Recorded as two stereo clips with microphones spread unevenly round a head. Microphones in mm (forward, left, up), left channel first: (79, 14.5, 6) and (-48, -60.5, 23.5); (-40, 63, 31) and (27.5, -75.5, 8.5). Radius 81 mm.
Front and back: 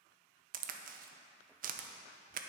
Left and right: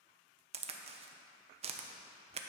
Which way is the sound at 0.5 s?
120° right.